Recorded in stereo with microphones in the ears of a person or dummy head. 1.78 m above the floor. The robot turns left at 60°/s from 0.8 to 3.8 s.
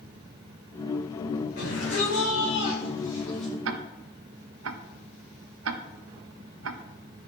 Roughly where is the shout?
Behind left.